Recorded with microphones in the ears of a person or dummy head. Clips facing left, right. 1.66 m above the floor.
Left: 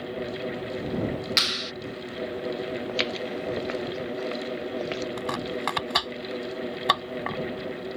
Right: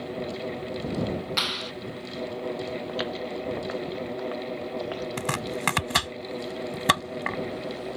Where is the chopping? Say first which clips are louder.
Left 1 dB; 35° right (ahead or behind).